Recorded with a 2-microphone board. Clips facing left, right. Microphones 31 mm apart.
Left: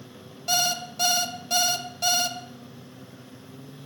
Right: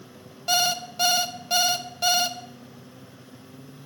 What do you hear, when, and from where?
0.5 s an alarm clock: 15° right (ahead or behind), 0.7 m